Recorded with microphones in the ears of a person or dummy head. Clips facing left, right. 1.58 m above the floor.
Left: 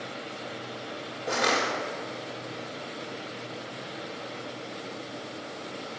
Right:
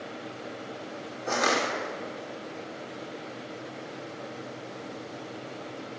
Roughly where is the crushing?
Right.